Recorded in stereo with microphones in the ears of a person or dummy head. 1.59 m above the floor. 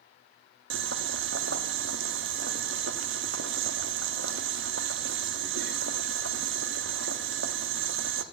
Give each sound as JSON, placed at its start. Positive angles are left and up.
{"t": 0.7, "sound": "boiling", "side_deg": -60, "distance_m": 0.8}